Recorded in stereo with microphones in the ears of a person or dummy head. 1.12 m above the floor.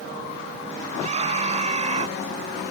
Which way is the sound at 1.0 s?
40° right (ahead or behind).